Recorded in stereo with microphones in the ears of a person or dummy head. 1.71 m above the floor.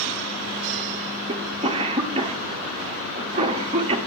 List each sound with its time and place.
1.3 s a cough: 30° right (ahead or behind), 0.9 m